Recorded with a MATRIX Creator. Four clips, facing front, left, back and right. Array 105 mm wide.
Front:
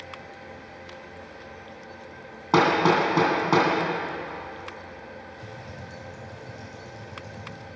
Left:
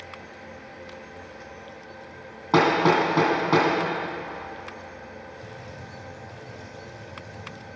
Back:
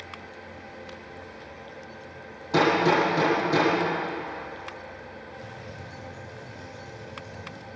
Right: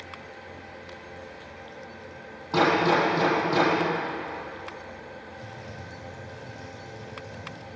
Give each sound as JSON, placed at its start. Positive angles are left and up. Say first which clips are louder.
{"t": 2.5, "sound": "hammering", "louder": "left 2 dB, front 1 dB", "azimuth_deg": 35, "distance_m": 3.0}
{"t": 5.4, "sound": "typing on a keyboard", "louder": "even, even", "azimuth_deg": -15, "distance_m": 4.0}